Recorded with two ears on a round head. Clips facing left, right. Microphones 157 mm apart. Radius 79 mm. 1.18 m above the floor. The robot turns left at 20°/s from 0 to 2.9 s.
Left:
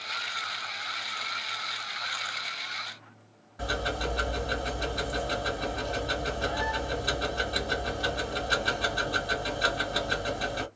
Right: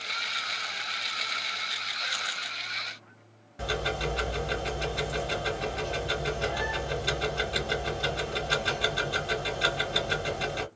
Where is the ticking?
25° right (ahead or behind), 2 m.